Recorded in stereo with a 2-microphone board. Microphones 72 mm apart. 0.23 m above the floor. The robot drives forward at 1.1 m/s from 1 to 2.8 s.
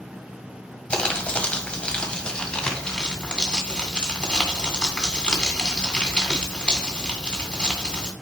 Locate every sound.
0.9 s crumpling: 15° left (ahead or behind), 1.6 m; by 8.1 s 10° left (ahead or behind), 2 m